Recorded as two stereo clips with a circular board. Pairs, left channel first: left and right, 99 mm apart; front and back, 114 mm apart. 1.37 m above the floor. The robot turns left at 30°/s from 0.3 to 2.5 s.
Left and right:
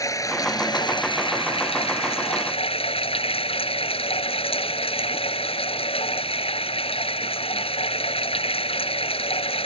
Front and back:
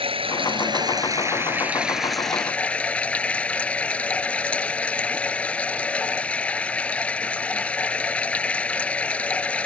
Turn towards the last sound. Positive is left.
turn(degrees=80)